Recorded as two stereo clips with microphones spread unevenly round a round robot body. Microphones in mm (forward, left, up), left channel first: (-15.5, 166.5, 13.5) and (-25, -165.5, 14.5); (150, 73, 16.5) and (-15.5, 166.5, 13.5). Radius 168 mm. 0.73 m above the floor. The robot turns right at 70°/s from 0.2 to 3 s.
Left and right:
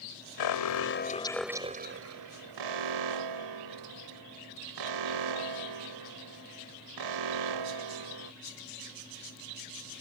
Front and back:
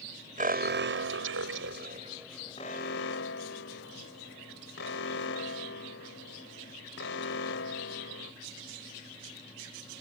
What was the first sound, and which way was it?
An alarm, 105° left.